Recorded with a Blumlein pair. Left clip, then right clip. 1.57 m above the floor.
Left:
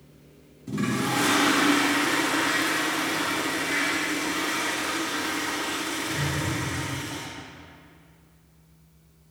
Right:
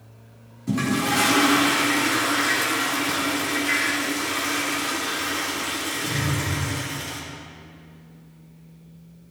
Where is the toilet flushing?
70° right, 4 m.